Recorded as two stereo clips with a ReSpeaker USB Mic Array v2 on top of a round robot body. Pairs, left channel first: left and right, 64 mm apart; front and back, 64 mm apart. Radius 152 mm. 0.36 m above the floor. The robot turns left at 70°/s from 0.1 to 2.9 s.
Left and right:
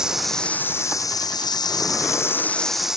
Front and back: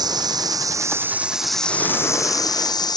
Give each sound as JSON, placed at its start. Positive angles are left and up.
{"t": 0.0, "sound": "running water", "azimuth_deg": -170}